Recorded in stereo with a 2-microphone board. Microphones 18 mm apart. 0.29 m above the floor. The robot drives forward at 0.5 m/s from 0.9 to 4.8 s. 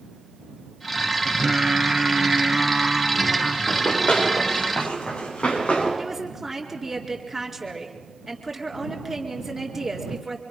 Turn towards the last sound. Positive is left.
turn(degrees=-10)  # may be behind; listen again after turning